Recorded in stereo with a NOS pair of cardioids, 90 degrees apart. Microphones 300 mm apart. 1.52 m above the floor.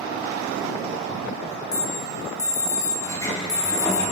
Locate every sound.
1.7 s an alarm: 15° left, 4.5 m
3.0 s a sliding door: 10° left, 4.5 m